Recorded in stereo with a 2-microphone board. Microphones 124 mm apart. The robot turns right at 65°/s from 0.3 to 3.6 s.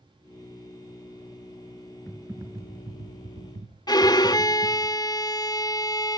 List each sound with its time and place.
2.1 s typing on a keyboard: 175° left, 2 m; by 4.9 s 85° right, 2 m
3.9 s a violin: 30° left (ahead or behind), 0.6 m